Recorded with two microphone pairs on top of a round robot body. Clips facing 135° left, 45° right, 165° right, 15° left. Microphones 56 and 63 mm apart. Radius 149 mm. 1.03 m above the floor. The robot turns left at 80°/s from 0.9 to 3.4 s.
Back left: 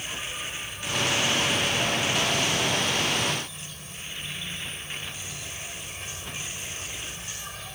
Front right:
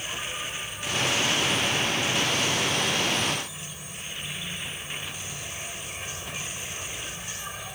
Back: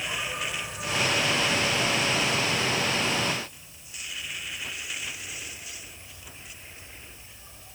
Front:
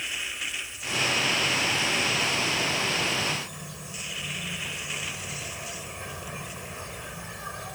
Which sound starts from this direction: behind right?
An insect, at 0.0 s.